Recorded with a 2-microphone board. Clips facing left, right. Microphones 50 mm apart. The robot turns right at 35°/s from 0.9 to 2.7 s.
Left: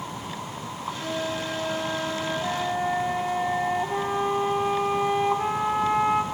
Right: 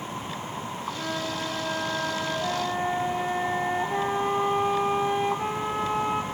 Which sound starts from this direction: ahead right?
A flute, at 1.0 s.